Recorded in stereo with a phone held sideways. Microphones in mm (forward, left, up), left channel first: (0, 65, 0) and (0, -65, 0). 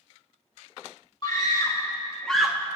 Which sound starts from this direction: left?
A scream, at 1.2 s.